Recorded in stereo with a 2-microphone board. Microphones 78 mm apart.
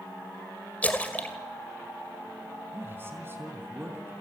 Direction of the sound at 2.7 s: 30° right (ahead or behind).